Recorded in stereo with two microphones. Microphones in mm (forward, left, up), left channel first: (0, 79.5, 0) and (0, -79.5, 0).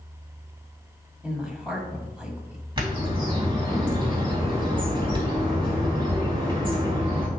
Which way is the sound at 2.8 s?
35° right (ahead or behind).